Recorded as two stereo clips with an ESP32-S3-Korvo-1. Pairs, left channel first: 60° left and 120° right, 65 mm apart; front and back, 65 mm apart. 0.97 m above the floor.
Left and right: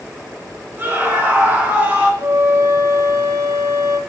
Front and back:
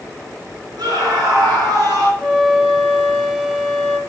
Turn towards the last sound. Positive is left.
turn(degrees=-90)